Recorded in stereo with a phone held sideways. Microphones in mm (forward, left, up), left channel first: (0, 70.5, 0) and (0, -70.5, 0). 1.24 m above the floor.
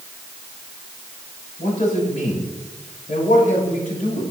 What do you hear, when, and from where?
1.6 s a man speaking: 70° left (ahead or behind), 7 m